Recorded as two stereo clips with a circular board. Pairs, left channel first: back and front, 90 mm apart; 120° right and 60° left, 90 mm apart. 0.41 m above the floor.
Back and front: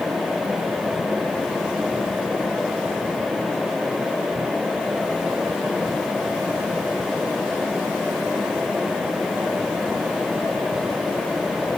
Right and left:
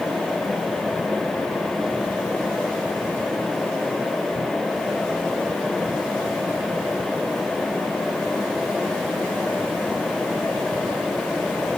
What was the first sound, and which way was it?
Only background noise.